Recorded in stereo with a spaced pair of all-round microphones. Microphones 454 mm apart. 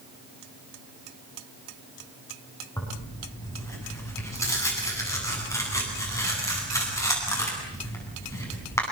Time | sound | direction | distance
2.8 | tearing paper | 5° left (ahead or behind) | 8.5 m